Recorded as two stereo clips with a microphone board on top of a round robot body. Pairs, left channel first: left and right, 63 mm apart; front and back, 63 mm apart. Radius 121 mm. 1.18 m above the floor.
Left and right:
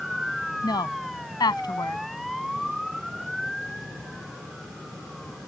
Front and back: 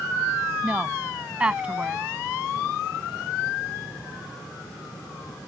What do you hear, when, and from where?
0.6 s a woman speaking: 105° left